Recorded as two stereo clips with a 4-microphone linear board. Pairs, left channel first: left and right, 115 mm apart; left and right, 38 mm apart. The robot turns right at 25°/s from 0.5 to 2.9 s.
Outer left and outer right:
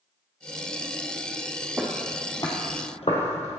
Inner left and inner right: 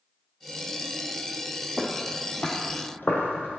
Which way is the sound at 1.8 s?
15° right (ahead or behind).